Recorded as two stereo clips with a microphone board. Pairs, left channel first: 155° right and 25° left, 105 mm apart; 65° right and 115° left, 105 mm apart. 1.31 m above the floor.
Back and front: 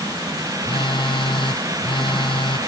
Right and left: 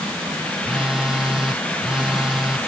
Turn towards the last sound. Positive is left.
turn(degrees=-165)